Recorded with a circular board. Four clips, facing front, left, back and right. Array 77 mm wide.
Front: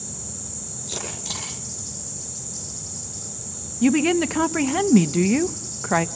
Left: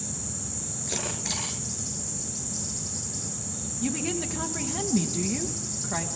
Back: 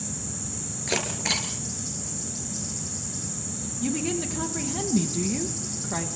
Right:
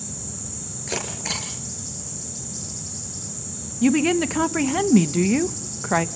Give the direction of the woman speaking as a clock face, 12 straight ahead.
1 o'clock.